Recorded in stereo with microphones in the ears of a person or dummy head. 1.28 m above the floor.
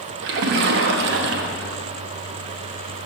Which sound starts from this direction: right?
A splash, at 0.2 s.